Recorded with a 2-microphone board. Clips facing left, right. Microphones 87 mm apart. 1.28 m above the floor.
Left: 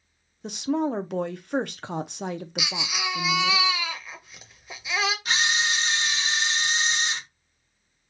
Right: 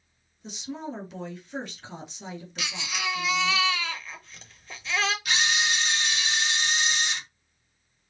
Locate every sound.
0.4 s a woman speaking: 60° left (ahead or behind), 0.5 m
2.6 s a baby crying: 10° left (ahead or behind), 0.7 m
5.2 s a camera shutter: 35° left (ahead or behind), 1.4 m